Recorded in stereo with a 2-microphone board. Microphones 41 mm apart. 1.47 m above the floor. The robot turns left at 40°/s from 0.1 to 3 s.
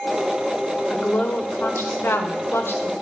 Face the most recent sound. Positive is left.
turn(degrees=60)